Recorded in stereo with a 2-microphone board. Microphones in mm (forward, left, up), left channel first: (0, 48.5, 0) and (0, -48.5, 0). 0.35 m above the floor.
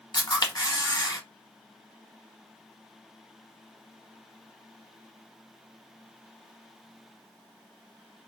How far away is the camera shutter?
About 0.8 m.